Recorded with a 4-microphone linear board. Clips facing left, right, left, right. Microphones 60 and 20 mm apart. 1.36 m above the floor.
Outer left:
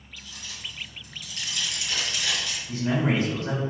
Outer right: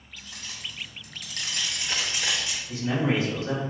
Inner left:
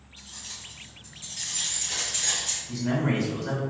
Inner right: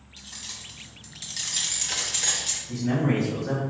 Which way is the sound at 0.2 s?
45° right (ahead or behind).